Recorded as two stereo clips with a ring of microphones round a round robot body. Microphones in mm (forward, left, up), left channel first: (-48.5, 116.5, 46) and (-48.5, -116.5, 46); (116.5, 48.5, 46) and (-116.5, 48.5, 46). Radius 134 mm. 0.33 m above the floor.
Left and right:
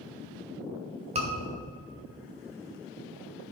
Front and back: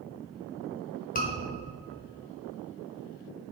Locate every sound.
1.1 s a scream: 40° right, 1.6 m